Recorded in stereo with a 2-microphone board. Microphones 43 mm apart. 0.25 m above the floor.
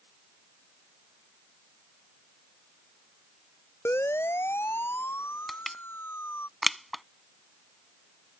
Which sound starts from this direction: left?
A siren, at 3.9 s.